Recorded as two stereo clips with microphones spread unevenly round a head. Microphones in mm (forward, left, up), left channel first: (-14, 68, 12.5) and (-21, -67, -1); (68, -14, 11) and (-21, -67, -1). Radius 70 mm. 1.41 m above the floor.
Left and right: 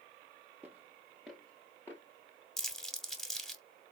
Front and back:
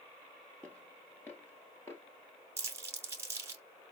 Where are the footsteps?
15° right, 1.5 m; by 2.0 s 45° left, 1.5 m.